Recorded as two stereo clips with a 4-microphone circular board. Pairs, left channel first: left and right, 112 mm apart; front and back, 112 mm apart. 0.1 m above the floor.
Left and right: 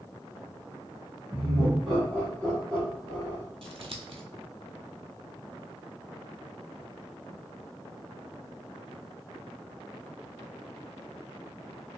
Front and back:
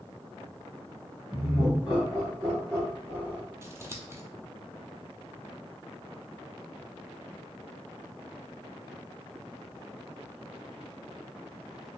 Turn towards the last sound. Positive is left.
turn(degrees=-115)